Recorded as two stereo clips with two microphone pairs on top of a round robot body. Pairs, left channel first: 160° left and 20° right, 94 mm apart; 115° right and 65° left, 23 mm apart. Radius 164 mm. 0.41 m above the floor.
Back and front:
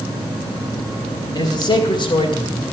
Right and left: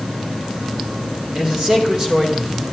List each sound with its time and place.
1.4 s a man speaking: 115° left, 3.5 m; by 2.6 s 130° left, 3 m